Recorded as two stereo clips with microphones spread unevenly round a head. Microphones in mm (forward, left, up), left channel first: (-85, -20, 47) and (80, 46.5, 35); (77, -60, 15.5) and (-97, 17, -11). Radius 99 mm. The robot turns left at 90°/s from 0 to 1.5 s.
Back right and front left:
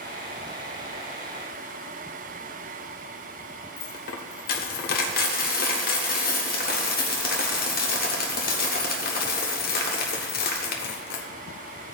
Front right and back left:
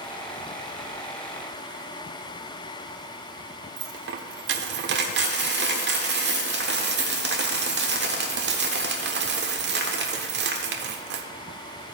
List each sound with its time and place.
3.8 s a dropped coin: straight behind, 1.2 m